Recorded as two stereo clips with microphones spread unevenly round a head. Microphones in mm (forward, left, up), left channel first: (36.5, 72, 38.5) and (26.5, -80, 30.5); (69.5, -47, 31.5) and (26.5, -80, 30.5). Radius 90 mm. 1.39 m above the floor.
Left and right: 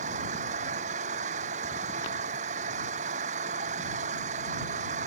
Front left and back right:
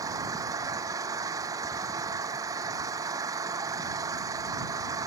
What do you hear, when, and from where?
0.0 s an engine running: 145° right